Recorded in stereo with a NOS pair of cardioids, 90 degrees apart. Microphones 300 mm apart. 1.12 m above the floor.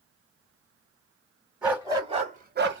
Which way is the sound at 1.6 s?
5° right.